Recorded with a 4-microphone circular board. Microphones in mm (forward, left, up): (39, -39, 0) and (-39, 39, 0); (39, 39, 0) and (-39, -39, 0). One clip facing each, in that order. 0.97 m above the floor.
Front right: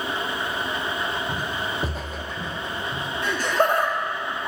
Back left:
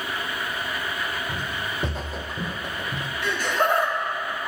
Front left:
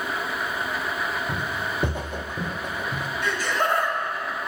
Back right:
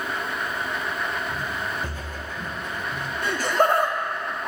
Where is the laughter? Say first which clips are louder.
Front right 2 dB, back right 4 dB; 95° right, 2 m.